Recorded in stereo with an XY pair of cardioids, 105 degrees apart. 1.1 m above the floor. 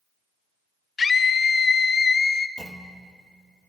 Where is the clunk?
25° right, 1.0 m.